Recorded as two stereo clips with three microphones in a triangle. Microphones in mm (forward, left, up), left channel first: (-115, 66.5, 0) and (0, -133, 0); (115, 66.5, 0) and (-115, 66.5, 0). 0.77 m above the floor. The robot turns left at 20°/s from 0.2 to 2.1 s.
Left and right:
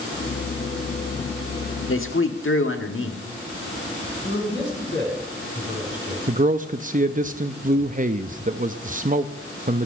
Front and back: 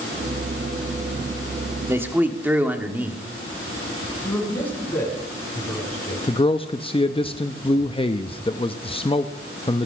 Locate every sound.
1.9 s a man speaking: 100° left, 1.4 m; by 3.2 s 95° left, 1.4 m
4.2 s a man speaking: 85° left, 6.5 m
6.3 s a man speaking: 45° right, 0.6 m